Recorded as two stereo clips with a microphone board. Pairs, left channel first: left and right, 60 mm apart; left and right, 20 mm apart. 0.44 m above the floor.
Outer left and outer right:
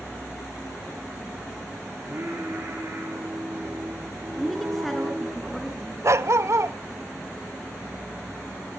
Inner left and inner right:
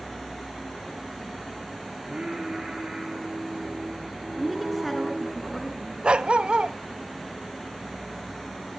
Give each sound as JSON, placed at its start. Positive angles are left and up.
{"t": 2.0, "sound": "singing", "side_deg": -40, "distance_m": 10.0}
{"t": 4.4, "sound": "a woman speaking", "side_deg": 0, "distance_m": 5.0}
{"t": 6.0, "sound": "a dog barking", "side_deg": -55, "distance_m": 0.9}